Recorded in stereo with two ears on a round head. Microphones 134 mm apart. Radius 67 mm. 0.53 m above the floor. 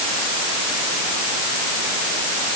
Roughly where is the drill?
I don't hear a drill.